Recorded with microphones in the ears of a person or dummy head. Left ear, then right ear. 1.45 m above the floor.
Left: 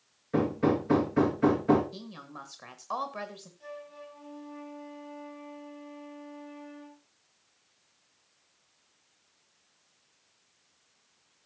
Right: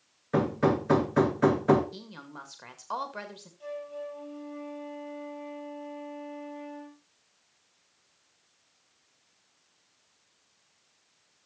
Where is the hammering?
50° right (ahead or behind), 1.9 m.